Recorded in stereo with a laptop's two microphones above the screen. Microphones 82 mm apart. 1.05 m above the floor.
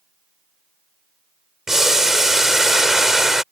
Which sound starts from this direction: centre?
Boiling, at 1.7 s.